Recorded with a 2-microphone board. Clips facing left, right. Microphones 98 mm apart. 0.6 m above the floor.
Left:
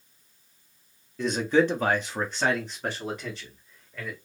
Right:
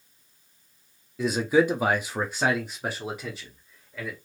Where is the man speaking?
5° right (ahead or behind), 0.7 m; by 4.2 s 10° right (ahead or behind), 1.7 m.